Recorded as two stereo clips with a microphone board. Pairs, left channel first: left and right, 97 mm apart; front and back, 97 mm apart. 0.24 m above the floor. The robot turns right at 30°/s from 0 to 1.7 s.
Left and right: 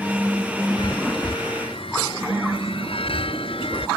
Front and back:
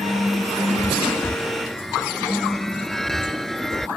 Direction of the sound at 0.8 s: 60° left.